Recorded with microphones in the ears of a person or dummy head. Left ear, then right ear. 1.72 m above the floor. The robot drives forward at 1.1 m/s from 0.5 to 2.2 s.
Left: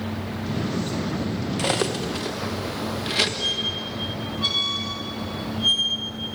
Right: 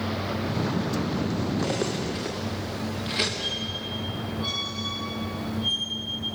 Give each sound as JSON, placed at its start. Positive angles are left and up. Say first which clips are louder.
{"t": 1.6, "sound": "cutlery clinking", "louder": "left 7 dB", "side_deg": 25, "distance_m": 0.9}
{"t": 3.4, "sound": "a squeak", "louder": "left 5 dB", "side_deg": 20, "distance_m": 1.7}